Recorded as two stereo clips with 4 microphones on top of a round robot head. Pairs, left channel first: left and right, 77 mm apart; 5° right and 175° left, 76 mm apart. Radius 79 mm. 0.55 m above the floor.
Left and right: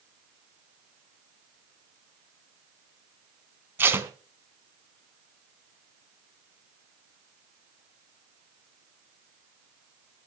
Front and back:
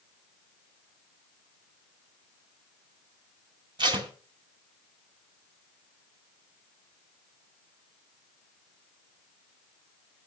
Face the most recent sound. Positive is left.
turn(degrees=-150)